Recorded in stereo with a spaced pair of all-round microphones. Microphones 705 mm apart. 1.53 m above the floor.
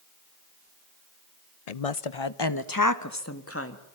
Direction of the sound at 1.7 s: 65° left (ahead or behind).